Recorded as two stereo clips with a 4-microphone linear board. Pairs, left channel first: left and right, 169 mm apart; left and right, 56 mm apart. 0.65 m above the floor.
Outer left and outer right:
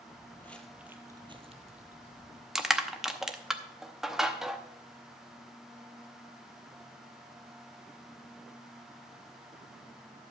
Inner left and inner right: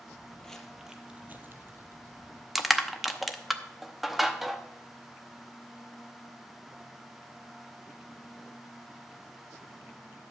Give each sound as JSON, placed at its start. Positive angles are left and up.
{"t": 0.1, "sound": "footsteps", "side_deg": 25, "distance_m": 1.3}
{"t": 2.5, "sound": "crushing", "side_deg": 0, "distance_m": 0.7}